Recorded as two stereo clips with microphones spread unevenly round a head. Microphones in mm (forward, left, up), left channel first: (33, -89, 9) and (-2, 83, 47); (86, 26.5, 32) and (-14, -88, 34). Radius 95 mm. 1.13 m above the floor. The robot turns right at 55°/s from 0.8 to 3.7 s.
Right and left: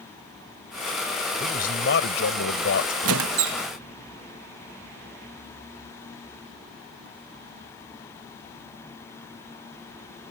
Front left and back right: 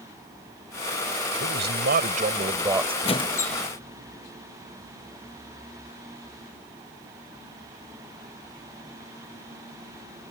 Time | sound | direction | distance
1.4 | a man speaking | 140° right | ?
3.0 | a squeak | 105° left | ?